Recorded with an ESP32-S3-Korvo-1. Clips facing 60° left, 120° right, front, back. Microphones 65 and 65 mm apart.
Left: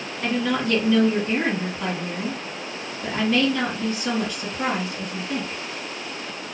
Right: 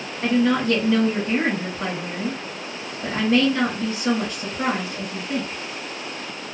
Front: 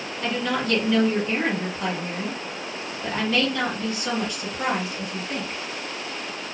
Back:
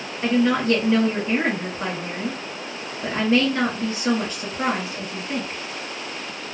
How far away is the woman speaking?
About 1.9 m.